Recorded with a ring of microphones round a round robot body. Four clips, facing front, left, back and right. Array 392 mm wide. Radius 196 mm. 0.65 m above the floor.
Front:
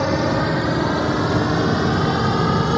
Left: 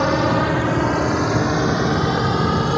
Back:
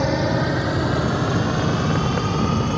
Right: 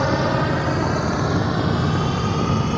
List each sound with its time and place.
0.0 s a drone: 70° left; by 2.8 s 45° left